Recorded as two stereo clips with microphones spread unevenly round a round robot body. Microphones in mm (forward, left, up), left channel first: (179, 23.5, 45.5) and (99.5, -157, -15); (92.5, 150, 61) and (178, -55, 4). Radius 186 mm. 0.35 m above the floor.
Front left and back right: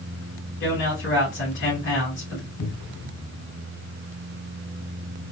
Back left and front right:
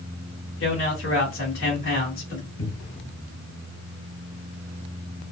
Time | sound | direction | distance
0.6 | a man speaking | 100° left | 2.0 m
2.6 | a cupboard door | 90° left | 1.6 m